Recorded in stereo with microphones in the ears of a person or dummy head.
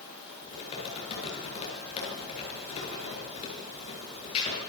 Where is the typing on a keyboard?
35° left (ahead or behind), 9.5 m.